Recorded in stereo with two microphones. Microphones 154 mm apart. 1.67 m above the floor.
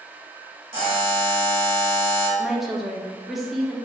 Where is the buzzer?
40° right (ahead or behind), 1.2 m.